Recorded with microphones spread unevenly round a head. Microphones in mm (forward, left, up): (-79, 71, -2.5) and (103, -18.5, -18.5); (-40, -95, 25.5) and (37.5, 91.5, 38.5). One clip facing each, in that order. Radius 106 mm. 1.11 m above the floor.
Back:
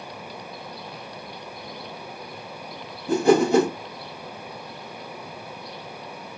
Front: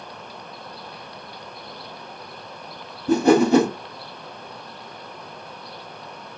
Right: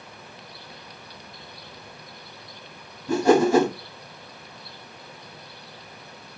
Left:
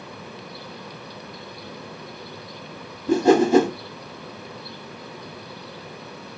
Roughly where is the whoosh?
Ahead.